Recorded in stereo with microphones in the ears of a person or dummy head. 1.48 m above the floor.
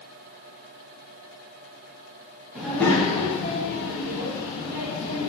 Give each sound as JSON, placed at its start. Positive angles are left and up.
{"t": 2.5, "sound": "a child speaking", "side_deg": 0, "distance_m": 0.8}